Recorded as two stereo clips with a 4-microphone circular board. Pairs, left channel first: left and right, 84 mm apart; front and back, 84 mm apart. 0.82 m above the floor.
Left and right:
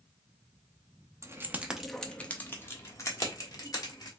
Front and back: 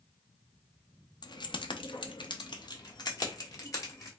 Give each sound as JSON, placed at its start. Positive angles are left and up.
{"t": 1.2, "sound": "keys jangling", "azimuth_deg": -35, "distance_m": 0.7}